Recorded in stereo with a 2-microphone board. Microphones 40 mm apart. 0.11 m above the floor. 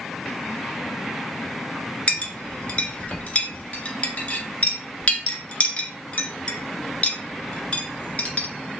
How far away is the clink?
About 0.9 m.